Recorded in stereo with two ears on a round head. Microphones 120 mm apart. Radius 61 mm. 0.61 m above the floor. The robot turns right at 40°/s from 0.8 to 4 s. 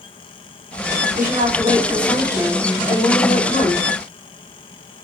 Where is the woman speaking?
65° right, 4.5 m; by 3.9 s 45° left, 4.5 m.